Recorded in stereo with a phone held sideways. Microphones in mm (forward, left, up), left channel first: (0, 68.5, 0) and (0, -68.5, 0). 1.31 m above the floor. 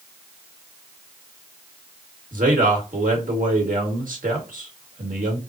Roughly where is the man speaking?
Right.